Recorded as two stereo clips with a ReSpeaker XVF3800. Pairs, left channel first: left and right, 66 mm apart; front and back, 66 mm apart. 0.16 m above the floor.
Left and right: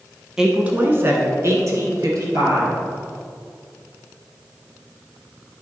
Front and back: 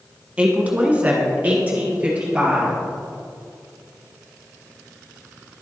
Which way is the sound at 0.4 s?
150° right.